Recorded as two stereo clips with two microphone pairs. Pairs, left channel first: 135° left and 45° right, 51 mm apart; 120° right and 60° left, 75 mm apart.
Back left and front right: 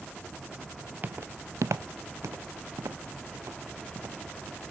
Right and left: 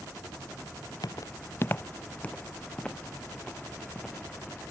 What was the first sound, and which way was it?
Footsteps, 95° right.